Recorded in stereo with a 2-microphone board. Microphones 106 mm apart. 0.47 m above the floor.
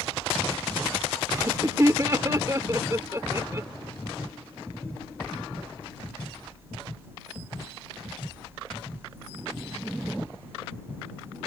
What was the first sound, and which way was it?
Laughter, 30° right (ahead or behind).